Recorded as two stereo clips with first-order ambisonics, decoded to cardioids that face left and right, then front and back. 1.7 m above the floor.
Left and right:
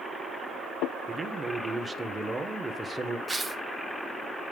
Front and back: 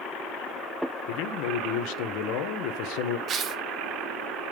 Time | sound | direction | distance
1.1 | a man speaking | 10° right | 1.2 m
3.3 | tearing paper | 160° right | 1.0 m